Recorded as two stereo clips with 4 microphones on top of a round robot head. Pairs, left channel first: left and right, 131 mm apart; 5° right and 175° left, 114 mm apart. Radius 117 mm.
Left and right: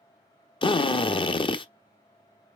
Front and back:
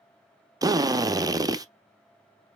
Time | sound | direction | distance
0.6 | a drill | 125° left | 0.8 m